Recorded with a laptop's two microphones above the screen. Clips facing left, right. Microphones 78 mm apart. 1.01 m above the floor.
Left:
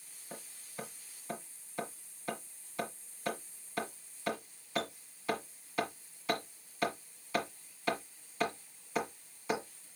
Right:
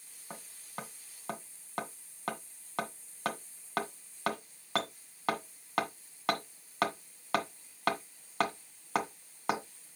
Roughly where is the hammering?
Right.